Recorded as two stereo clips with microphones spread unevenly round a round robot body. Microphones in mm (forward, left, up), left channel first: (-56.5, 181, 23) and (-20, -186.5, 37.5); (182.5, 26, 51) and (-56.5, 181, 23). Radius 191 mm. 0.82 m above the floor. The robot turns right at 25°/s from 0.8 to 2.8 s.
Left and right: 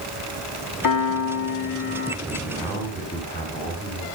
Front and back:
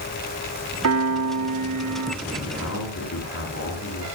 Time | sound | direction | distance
0.8 | a piano | 125° left | 2 m
2.2 | a man speaking | straight ahead | 6 m